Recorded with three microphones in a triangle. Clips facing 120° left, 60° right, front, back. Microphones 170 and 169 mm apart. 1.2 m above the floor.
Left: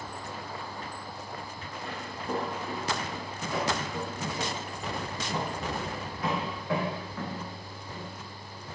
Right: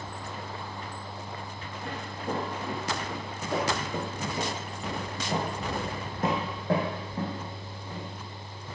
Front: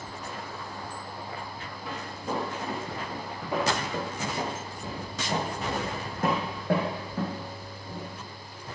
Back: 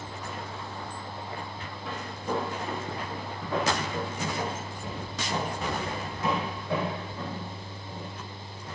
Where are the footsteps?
85° right, 4.5 m; by 8.1 s 10° left, 3 m.